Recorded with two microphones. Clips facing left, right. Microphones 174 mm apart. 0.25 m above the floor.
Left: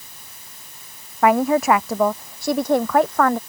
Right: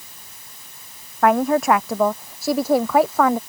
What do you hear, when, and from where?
1.2 s a woman speaking: centre (ahead or behind); by 3.4 s 5° right (ahead or behind)